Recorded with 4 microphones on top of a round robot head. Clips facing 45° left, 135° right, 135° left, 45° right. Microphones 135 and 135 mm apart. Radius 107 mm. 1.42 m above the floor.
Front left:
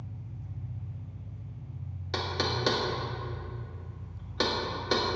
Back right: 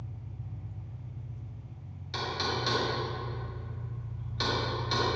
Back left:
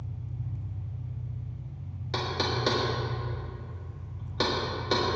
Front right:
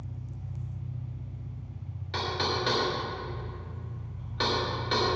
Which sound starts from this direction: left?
Knocking, at 2.1 s.